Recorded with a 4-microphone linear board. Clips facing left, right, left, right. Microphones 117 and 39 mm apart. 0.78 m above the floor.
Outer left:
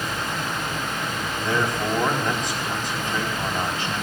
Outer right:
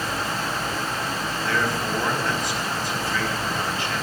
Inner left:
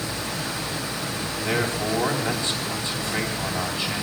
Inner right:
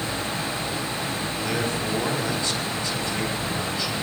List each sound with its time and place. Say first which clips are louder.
1.4 s a man speaking: outer left 2 dB, inner left 3 dB; 20° left (ahead or behind), 4.5 m